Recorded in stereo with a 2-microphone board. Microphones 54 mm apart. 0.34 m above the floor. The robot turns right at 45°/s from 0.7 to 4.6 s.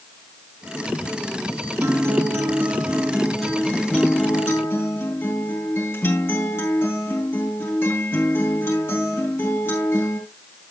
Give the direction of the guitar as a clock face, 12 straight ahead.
2 o'clock.